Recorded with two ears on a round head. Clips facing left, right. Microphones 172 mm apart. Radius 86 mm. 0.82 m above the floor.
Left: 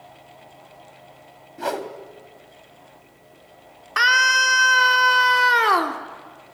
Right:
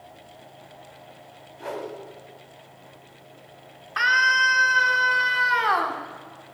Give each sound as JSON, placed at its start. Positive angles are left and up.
{"t": 1.6, "sound": "a whoosh", "side_deg": 85, "distance_m": 2.0}
{"t": 4.0, "sound": "a scream", "side_deg": 60, "distance_m": 3.0}